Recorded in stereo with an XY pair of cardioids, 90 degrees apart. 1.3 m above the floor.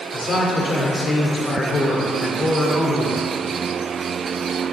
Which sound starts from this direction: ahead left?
A man speaking, at 0.1 s.